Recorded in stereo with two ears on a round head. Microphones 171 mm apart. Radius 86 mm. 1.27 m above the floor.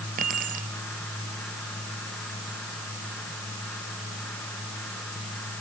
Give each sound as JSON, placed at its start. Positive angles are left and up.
{"t": 0.2, "sound": "keys jangling", "side_deg": -45}